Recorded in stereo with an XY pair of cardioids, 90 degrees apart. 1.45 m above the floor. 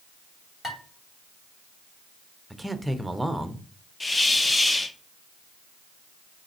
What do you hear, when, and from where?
0.6 s dishes clattering: 35° left, 3 m
2.5 s a man speaking: 5° right, 0.8 m
4.0 s a hiss: 20° left, 0.6 m